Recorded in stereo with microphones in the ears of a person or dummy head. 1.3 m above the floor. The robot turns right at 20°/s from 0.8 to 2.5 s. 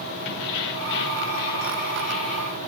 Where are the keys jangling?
115° left, 2.5 m; by 2.6 s 150° left, 2.5 m.